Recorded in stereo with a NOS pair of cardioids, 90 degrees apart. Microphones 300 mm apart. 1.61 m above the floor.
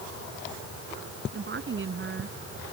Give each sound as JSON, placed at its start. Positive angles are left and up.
{"t": 1.3, "sound": "a woman speaking", "azimuth_deg": -40}